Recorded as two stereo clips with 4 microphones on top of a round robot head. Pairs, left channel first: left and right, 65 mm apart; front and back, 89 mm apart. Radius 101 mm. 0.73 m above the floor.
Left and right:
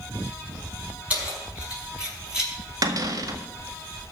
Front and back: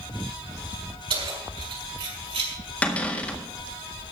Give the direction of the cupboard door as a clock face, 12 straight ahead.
2 o'clock.